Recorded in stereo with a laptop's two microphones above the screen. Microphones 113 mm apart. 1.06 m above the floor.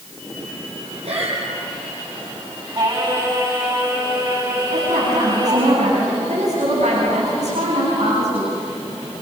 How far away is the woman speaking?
About 9 m.